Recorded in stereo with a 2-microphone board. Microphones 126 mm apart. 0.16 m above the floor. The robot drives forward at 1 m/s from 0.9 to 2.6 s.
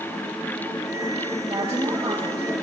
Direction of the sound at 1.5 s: 55° right (ahead or behind).